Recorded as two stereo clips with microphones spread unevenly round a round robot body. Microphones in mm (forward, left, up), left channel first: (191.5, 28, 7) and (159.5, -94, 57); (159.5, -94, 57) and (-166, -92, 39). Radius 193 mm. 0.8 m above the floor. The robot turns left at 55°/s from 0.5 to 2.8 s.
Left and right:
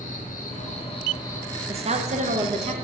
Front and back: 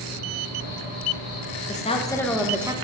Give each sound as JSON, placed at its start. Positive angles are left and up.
{"t": 0.0, "sound": "an insect", "azimuth_deg": 45, "distance_m": 1.6}
{"t": 1.7, "sound": "a woman speaking", "azimuth_deg": -55, "distance_m": 0.8}